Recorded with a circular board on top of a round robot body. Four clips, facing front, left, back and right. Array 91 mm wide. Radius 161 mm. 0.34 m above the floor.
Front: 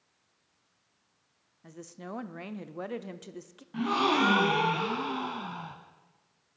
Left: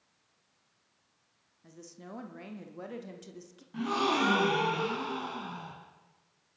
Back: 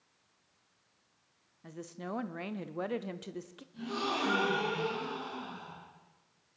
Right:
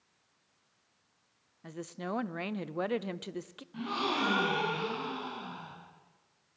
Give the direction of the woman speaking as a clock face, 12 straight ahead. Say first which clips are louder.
Right 10 dB, back 1 dB; 3 o'clock.